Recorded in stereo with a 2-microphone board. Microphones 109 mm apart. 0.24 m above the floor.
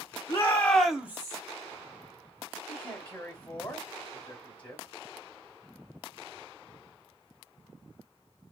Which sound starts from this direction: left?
A shout, at 0.3 s.